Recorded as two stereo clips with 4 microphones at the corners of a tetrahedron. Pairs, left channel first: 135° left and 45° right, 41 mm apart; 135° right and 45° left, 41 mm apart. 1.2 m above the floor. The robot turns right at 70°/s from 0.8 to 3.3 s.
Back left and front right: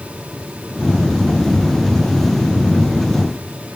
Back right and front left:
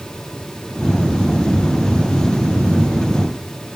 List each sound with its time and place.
Only background noise.